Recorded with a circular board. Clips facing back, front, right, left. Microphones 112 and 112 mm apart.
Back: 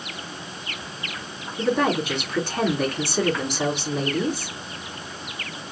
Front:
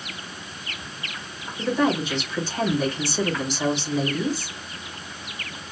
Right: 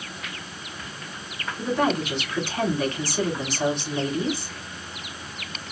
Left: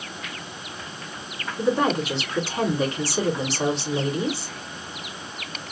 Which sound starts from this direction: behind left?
A woman speaking, at 1.6 s.